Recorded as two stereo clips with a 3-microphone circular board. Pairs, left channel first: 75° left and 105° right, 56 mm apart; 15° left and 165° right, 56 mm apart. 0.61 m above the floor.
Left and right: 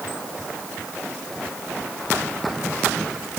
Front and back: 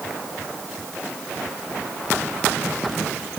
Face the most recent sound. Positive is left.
No sound to turn to.